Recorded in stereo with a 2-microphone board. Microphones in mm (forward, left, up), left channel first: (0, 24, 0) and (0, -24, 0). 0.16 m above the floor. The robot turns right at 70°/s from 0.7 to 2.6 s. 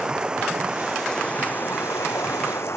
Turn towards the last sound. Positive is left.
turn(degrees=110)